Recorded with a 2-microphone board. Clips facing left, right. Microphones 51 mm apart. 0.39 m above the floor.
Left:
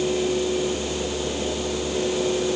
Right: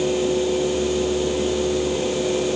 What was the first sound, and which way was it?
Only background noise.